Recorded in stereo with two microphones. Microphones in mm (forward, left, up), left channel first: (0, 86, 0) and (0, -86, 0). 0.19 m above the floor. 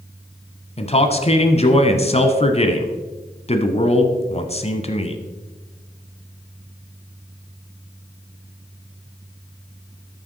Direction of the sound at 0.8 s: 40° left (ahead or behind).